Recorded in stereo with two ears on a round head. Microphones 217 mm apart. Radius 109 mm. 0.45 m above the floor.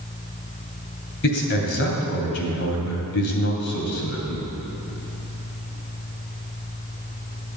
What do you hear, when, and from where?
1.2 s a man speaking: 50° left (ahead or behind), 2.5 m